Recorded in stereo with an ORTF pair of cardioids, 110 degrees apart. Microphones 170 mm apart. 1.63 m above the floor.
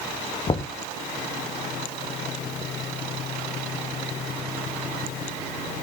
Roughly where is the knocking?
Ahead left.